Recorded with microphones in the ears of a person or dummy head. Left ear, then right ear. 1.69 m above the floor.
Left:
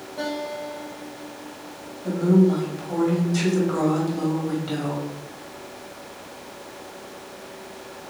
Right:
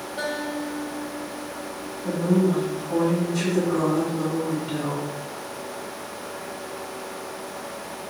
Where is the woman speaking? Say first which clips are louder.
Left 3 dB; 70° left (ahead or behind), 1.8 m.